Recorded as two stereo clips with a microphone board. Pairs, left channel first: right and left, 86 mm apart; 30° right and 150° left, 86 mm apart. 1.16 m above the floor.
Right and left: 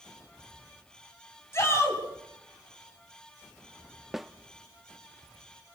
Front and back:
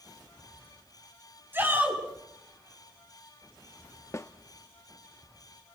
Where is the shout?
145° right, 7.5 m.